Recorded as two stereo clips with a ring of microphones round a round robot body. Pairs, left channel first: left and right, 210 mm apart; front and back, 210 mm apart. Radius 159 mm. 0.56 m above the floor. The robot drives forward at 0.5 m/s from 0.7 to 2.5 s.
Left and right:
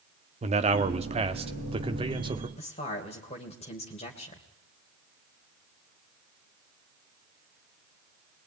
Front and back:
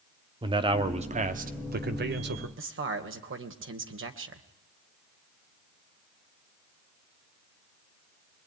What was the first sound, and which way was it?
A man speaking, 125° right.